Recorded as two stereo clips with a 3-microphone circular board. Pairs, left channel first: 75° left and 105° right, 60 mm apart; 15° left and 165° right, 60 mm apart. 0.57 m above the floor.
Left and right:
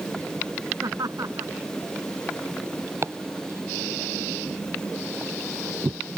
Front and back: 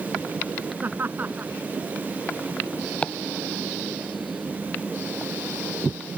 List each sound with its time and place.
0.8 s laughter: 110° right
3.0 s chopping: 60° right